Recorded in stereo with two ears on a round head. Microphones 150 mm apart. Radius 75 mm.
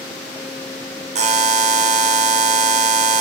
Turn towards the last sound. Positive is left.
turn(degrees=-40)  # may be behind; listen again after turning